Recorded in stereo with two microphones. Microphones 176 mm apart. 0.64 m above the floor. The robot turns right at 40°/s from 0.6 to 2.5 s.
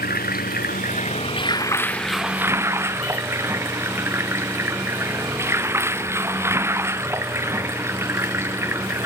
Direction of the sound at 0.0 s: 120° left.